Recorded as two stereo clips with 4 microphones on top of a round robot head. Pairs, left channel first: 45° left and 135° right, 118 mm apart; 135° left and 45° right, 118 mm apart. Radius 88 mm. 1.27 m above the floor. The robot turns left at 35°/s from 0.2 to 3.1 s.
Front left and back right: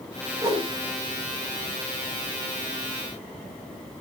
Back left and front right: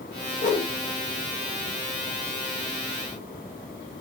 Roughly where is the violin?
I don't hear a violin.